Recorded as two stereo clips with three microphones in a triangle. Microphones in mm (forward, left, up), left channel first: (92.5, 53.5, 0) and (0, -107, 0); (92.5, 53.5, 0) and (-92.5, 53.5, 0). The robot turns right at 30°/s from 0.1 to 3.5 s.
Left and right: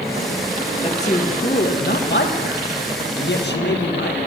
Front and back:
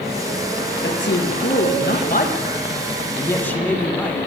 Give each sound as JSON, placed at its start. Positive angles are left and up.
{"t": 0.8, "sound": "a man speaking", "azimuth_deg": 0, "distance_m": 1.7}